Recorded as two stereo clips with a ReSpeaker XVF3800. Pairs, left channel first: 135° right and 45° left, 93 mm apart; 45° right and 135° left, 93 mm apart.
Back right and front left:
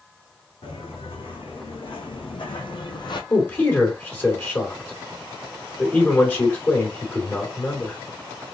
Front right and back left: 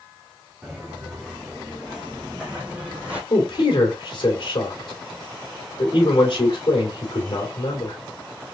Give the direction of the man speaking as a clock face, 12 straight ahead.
2 o'clock.